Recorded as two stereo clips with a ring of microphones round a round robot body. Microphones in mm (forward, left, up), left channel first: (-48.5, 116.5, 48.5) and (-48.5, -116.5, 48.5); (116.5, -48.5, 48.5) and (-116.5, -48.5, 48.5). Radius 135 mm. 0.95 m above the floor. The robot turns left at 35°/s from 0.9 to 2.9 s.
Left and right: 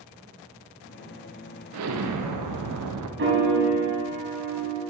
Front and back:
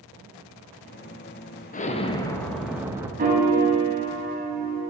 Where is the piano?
125° right, 1.9 m.